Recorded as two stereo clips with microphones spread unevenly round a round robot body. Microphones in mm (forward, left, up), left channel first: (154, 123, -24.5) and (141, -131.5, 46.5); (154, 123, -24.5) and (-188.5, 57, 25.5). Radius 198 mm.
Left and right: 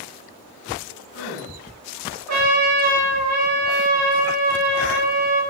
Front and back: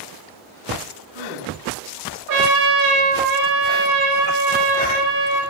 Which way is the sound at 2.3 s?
130° right.